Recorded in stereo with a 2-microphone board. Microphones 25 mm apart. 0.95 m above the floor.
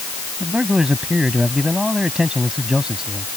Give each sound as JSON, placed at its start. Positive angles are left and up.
{"t": 0.4, "sound": "a man speaking", "side_deg": -25}